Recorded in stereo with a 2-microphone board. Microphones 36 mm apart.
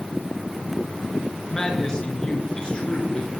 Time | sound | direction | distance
1.5 | a man speaking | 15° left (ahead or behind) | 5 m